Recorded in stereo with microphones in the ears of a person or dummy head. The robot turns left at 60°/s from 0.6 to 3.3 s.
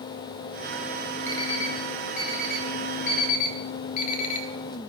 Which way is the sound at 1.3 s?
10° left (ahead or behind).